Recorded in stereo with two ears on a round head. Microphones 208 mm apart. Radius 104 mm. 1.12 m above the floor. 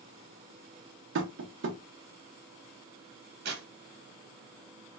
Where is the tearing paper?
50° right (ahead or behind), 1.0 m.